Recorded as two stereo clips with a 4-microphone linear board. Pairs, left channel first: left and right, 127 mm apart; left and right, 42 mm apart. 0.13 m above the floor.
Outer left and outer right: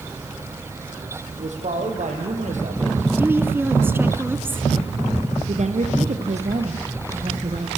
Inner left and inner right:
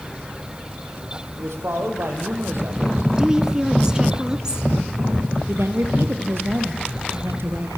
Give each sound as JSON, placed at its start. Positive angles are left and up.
{"t": 1.3, "sound": "a man speaking", "side_deg": -75, "distance_m": 6.5}
{"t": 3.2, "sound": "a woman speaking", "side_deg": -15, "distance_m": 1.5}
{"t": 5.5, "sound": "a woman speaking", "side_deg": -65, "distance_m": 3.5}